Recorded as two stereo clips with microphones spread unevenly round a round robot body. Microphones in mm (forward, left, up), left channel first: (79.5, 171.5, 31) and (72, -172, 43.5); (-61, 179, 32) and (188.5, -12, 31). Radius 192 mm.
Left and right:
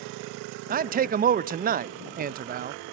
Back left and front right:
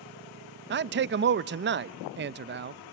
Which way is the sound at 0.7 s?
40° right.